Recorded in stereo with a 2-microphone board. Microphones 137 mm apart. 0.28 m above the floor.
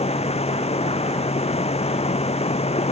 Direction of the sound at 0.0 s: 50° left (ahead or behind).